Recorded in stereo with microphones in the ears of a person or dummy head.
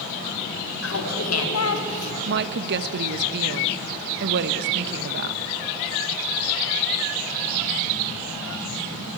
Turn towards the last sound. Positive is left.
turn(degrees=-60)  # may be behind; listen again after turning